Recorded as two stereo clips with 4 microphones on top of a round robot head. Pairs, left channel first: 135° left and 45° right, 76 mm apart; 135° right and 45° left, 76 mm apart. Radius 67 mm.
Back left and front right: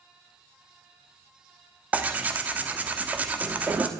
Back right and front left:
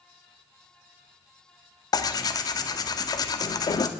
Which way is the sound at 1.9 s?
115° right.